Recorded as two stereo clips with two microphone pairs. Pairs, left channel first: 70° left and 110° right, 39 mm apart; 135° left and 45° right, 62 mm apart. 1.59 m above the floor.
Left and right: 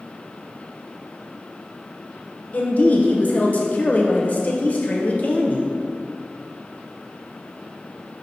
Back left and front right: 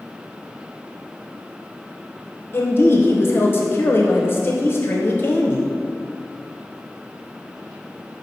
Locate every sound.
2.5 s a woman speaking: 100° left, 0.7 m